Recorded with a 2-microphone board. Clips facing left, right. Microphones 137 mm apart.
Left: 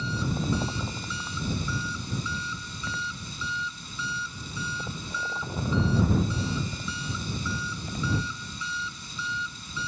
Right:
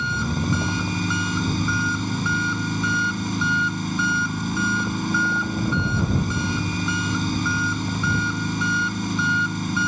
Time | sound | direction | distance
0.0 | an engine running | 75° right (ahead or behind) | ?